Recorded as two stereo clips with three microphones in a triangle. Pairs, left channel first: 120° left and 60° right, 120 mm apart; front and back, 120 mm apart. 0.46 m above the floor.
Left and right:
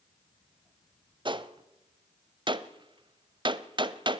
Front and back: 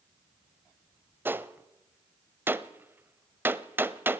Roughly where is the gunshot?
Right.